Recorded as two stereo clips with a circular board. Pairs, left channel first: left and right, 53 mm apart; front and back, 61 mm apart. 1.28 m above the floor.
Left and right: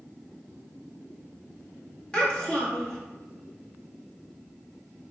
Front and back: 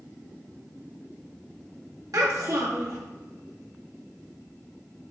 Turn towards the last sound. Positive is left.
turn(degrees=165)